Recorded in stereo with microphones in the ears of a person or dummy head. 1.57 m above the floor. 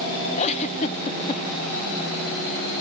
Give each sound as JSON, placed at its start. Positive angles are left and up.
{"t": 0.4, "sound": "a giggle", "side_deg": 40, "distance_m": 1.0}